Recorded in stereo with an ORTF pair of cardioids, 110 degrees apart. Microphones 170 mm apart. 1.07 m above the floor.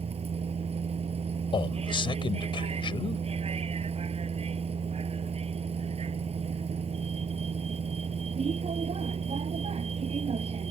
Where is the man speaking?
30° left.